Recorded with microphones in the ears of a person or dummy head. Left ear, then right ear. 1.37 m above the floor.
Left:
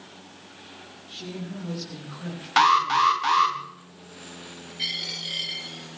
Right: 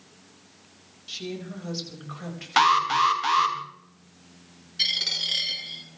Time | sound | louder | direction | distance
1.1 | a woman speaking | right 3 dB | 60° right (ahead or behind) | 6.5 m
2.6 | an alarm | left 1 dB | centre (ahead or behind) | 1.4 m
4.8 | a dropped coin | right 5 dB | 50° right (ahead or behind) | 8 m